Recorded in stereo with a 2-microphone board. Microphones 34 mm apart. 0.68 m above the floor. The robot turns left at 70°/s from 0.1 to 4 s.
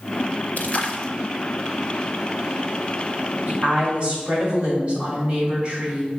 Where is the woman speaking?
110° right, 3 m; by 6.2 s 150° right, 3 m.